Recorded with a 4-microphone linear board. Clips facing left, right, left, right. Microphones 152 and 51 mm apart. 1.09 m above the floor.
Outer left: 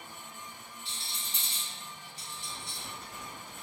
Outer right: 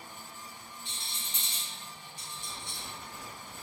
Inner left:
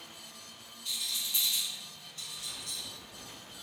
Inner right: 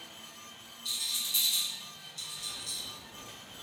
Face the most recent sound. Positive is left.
turn(degrees=35)  # may be behind; listen again after turning